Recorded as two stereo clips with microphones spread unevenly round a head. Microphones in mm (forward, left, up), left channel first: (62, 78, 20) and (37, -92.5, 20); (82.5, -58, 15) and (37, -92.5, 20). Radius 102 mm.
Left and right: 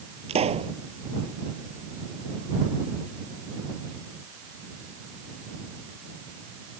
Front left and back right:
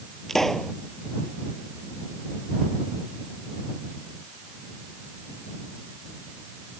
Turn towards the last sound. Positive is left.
turn(degrees=-45)